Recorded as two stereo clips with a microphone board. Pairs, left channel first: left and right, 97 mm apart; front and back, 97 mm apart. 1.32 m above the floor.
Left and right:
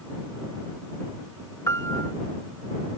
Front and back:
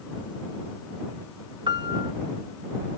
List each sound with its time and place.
1.7 s a piano: 145° left